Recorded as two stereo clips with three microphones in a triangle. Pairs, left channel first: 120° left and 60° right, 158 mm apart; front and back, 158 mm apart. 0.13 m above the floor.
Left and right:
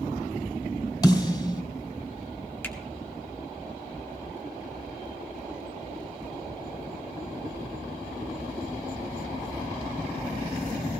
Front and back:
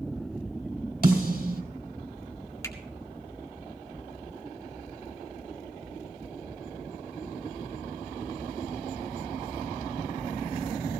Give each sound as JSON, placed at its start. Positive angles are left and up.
{"t": 1.0, "sound": "a snare drum", "azimuth_deg": -175, "distance_m": 2.5}
{"t": 2.6, "sound": "a finger snap", "azimuth_deg": 55, "distance_m": 1.7}